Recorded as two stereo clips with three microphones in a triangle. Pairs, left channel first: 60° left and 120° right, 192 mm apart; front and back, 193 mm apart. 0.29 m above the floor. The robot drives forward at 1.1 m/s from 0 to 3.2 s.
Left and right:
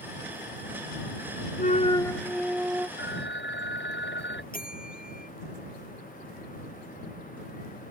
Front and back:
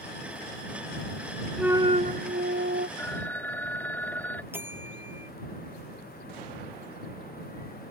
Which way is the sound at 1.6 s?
90° left.